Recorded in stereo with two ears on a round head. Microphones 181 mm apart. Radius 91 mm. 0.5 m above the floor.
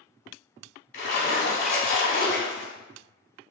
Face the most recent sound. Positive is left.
turn(degrees=45)  # may be behind; listen again after turning